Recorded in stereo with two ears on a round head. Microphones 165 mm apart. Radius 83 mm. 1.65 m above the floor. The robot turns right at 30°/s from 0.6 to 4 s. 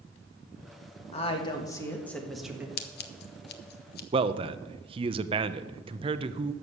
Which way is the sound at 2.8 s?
55° left (ahead or behind).